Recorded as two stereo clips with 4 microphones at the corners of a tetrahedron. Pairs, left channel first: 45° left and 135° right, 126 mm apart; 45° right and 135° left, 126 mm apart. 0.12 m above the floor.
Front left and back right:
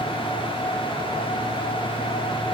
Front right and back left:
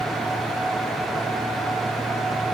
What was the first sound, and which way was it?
Only background noise.